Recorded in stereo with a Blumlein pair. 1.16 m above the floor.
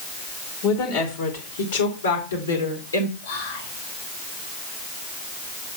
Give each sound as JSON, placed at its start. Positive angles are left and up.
{"t": 0.6, "sound": "a woman speaking", "azimuth_deg": 45, "distance_m": 2.5}
{"t": 3.2, "sound": "whispering", "azimuth_deg": 60, "distance_m": 2.5}